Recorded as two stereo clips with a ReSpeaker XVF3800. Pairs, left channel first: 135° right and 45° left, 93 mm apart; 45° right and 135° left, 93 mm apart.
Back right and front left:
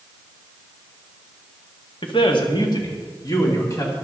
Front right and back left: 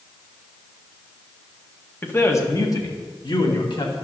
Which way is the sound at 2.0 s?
115° right.